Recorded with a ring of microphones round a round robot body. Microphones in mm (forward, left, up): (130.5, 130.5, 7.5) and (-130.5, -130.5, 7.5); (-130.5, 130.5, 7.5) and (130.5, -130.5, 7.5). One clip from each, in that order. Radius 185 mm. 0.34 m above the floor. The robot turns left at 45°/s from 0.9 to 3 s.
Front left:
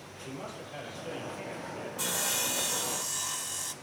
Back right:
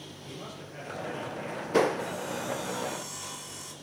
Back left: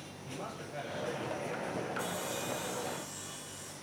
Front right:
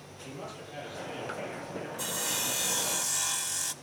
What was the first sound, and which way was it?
A man speaking, 10° right.